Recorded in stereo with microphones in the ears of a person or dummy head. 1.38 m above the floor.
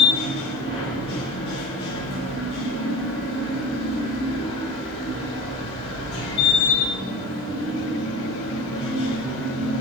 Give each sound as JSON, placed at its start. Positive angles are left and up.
{"t": 0.0, "sound": "a machine running", "side_deg": 30, "distance_m": 1.0}